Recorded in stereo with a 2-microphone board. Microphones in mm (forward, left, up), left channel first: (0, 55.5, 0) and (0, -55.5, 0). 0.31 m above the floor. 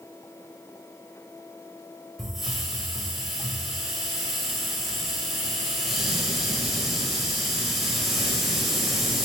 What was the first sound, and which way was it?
A hiss, centre (ahead or behind).